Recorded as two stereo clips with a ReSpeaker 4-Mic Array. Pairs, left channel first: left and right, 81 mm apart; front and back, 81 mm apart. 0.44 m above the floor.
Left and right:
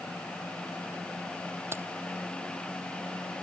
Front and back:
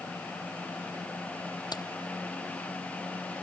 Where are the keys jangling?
30° right.